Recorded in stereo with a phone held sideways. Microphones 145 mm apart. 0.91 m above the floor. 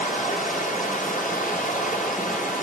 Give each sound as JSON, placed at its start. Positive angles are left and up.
{"t": 0.0, "sound": "running water", "side_deg": 65, "distance_m": 1.3}